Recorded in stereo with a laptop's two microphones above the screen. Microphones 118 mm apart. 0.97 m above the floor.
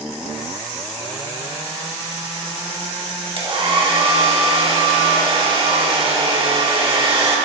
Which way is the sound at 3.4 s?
45° right (ahead or behind).